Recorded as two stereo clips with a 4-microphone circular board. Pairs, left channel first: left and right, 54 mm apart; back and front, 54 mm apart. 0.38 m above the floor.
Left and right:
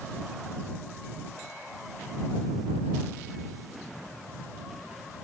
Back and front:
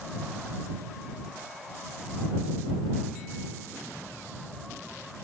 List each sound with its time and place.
Only background noise.